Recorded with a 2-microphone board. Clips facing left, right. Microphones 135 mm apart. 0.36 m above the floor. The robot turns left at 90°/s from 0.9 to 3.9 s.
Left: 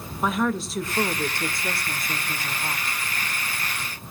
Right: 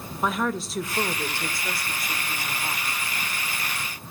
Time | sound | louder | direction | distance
0.2 | a woman speaking | left 2 dB | centre (ahead or behind) | 1.1 m